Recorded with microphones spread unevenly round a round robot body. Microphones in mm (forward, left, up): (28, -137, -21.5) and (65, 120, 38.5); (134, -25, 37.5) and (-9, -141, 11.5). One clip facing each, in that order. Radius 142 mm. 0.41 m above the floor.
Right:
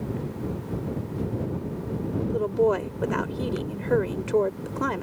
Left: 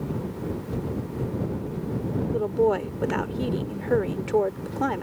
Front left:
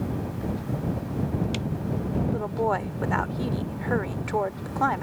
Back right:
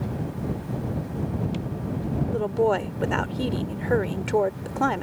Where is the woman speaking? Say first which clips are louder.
Even, back right 7 dB; 160° right.